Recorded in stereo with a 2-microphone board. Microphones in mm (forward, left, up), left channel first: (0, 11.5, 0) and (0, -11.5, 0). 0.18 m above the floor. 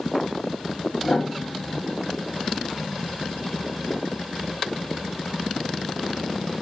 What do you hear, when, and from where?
1.0 s a piano: 65° left (ahead or behind), 5 m